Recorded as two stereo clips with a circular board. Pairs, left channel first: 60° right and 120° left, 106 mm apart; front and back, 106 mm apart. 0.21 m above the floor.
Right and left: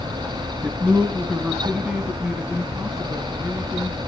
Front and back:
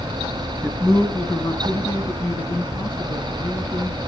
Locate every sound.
0.6 s a man speaking: 55° left, 1.2 m; by 4.0 s 35° left, 2.5 m